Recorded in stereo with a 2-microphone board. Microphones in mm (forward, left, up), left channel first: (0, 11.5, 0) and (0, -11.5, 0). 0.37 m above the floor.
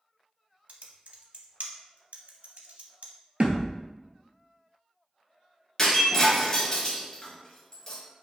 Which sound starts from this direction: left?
Breaking glass, at 5.8 s.